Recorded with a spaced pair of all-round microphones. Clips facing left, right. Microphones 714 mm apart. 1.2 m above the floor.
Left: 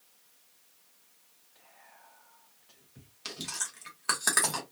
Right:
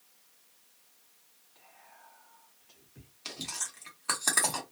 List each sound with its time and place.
1.6 s whispering: 10° left (ahead or behind), 1.2 m
3.2 s chewing: 45° left (ahead or behind), 1.1 m